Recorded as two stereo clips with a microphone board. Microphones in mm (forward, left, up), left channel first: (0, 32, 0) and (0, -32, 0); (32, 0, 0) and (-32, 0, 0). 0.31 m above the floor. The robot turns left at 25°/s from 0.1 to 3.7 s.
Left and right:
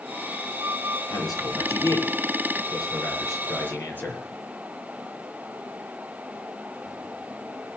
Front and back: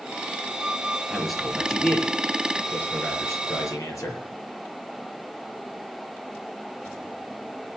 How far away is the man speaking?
About 5.5 m.